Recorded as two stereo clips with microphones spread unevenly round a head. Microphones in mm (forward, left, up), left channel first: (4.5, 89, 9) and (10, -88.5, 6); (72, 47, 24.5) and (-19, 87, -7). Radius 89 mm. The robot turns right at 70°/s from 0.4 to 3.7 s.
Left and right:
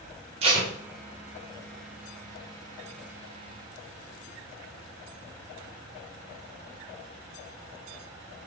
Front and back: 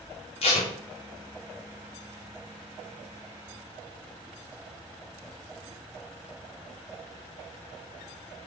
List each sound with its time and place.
0.4 s tape being pulled: 30° right, 1.0 m; by 0.7 s 10° right, 1.0 m